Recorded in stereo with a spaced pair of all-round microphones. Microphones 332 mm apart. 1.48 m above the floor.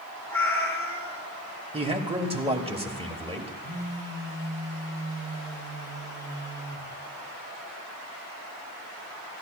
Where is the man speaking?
15° right (ahead or behind), 1.2 m.